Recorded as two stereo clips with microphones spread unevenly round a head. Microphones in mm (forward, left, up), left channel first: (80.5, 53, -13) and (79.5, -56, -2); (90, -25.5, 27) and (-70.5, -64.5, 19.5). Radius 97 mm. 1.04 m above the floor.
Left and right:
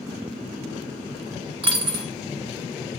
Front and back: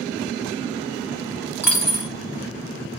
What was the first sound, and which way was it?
A dropped coin, 90° right.